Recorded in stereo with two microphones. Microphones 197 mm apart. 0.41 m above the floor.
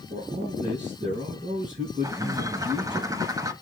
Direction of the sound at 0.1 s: 35° right (ahead or behind).